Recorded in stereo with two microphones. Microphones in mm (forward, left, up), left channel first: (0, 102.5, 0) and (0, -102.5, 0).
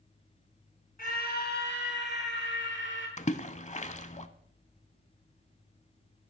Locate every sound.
1.0 s a scream: 45° left (ahead or behind), 2 m; by 3.1 s 65° left (ahead or behind), 4.5 m
3.2 s a splash: 35° left (ahead or behind), 0.7 m